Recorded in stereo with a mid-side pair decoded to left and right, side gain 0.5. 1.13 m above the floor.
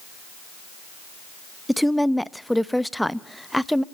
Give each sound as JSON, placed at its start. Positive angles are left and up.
{"t": 1.7, "sound": "a woman speaking", "azimuth_deg": 0, "distance_m": 0.9}